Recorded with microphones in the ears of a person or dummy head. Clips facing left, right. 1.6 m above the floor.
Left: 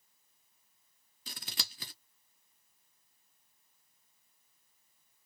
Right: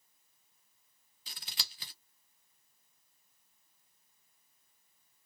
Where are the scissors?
50° left (ahead or behind), 0.6 m.